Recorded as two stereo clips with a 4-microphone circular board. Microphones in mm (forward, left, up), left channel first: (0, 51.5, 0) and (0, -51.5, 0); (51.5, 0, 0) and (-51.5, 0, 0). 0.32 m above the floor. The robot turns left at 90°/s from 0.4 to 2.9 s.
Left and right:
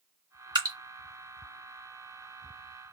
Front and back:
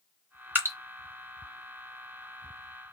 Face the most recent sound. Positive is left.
turn(degrees=35)